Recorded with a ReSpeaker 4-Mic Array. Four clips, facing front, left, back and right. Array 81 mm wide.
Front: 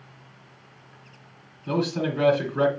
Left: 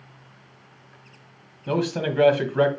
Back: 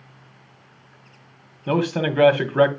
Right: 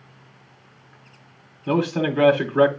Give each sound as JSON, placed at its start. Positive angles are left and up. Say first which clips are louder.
{"t": 1.7, "sound": "a man speaking", "louder": "right 3 dB, back 4 dB", "azimuth_deg": -175, "distance_m": 1.2}